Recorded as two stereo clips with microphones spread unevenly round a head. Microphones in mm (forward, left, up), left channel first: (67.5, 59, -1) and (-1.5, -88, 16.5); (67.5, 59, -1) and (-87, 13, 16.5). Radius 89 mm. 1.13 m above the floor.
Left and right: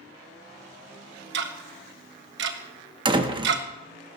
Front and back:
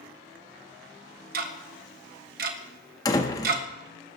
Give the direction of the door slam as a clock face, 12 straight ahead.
2 o'clock.